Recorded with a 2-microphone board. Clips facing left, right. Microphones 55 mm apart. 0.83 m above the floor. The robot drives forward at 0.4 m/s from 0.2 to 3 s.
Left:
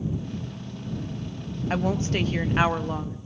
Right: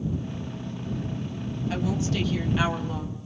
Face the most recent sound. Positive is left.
turn(degrees=40)  # may be behind; listen again after turning